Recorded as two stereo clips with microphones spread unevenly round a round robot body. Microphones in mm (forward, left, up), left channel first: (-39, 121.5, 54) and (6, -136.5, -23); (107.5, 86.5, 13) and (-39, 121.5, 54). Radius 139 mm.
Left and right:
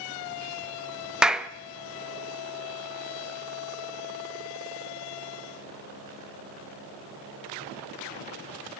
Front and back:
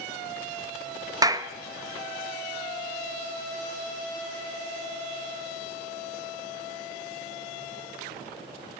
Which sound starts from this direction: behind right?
A clap, at 1.2 s.